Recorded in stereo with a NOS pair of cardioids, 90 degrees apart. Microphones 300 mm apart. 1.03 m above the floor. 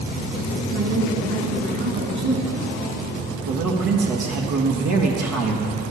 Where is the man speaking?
65° right, 1.3 m.